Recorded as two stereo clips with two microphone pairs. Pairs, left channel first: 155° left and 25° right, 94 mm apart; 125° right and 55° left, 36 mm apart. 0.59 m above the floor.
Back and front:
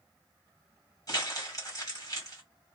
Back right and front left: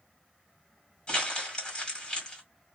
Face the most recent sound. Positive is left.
turn(degrees=180)